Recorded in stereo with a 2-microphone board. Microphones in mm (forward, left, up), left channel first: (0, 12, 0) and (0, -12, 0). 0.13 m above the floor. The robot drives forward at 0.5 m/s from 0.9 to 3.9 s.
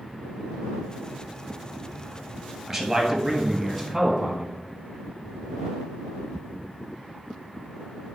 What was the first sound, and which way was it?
A man speaking, 15° right (ahead or behind).